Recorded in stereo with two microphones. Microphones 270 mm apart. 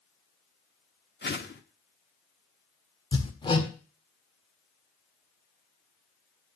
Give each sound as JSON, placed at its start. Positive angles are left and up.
{"t": 1.2, "sound": "a whoosh", "side_deg": 40, "distance_m": 1.1}
{"t": 3.1, "sound": "hammering", "side_deg": 15, "distance_m": 1.5}